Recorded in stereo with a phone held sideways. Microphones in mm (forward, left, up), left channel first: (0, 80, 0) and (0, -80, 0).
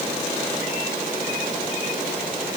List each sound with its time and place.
Only background noise.